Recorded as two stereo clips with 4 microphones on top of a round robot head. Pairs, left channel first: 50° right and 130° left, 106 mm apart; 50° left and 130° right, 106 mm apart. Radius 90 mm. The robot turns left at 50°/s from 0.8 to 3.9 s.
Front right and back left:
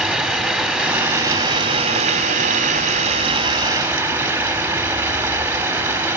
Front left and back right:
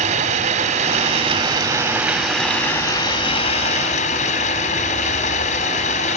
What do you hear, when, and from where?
0.0 s running water: 150° right, 3 m; by 6.2 s 55° left, 3 m